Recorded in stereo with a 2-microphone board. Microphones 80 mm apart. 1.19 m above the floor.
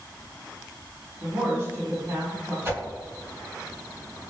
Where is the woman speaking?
40° right (ahead or behind), 1.7 m.